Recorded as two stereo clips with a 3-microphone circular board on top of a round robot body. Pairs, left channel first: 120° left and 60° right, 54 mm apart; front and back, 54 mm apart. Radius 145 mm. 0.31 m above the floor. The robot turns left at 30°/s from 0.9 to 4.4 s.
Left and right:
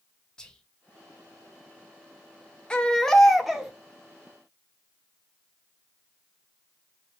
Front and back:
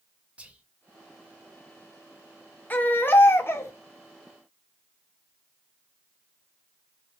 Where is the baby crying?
50° left, 0.8 m; by 3.7 s 20° left, 0.8 m.